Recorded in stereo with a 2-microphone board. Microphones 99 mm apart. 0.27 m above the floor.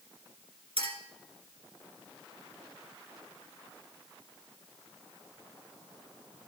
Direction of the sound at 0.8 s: 70° right (ahead or behind).